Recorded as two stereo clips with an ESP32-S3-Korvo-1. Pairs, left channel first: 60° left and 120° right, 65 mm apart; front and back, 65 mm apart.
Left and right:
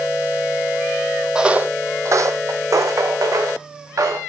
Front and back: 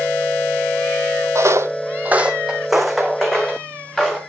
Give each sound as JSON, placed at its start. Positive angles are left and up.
{"t": 1.4, "sound": "footsteps", "azimuth_deg": 160, "distance_m": 0.8}